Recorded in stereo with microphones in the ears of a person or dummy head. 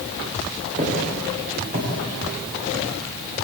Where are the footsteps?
45° right (ahead or behind), 10 m; by 2.9 s 50° right (ahead or behind), 9.5 m.